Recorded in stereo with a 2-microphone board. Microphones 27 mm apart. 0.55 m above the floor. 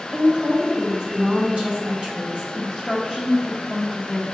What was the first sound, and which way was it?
A woman speaking, 40° right (ahead or behind).